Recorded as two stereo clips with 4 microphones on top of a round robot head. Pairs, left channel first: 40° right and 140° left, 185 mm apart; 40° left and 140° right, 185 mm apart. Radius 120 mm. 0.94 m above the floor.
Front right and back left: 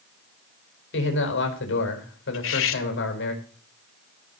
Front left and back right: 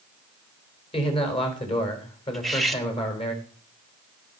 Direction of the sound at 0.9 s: 20° right.